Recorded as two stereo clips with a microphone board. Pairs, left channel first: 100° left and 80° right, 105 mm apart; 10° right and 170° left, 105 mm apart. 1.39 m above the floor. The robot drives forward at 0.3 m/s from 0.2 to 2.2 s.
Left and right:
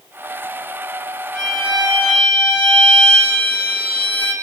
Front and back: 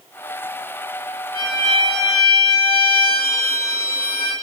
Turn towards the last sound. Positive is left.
turn(degrees=-165)